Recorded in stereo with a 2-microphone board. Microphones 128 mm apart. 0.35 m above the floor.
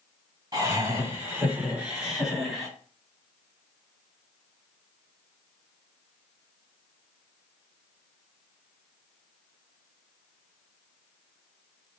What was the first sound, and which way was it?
Laughter, 30° right (ahead or behind).